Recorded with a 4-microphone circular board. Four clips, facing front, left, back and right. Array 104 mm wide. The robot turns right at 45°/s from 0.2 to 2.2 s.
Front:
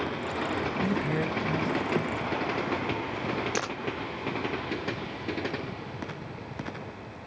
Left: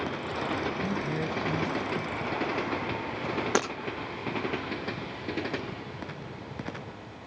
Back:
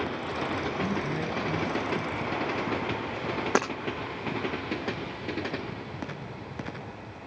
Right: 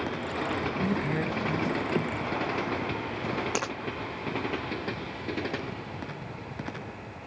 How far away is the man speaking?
About 1.7 m.